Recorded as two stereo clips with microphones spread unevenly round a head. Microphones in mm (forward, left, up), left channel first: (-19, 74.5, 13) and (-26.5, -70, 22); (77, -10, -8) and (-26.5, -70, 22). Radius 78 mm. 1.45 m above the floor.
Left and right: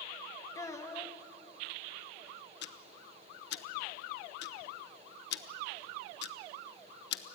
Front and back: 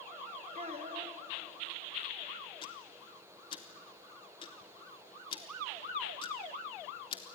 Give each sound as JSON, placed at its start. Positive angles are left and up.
{"t": 0.6, "sound": "a child speaking", "azimuth_deg": 160, "distance_m": 1.9}
{"t": 2.6, "sound": "ticking", "azimuth_deg": 95, "distance_m": 1.0}